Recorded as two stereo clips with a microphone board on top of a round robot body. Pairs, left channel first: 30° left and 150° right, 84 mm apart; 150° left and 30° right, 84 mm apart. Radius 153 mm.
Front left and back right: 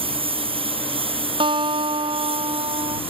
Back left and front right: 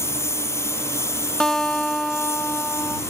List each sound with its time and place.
0.0 s a lawn mower: 150° right
1.4 s a guitar: 125° right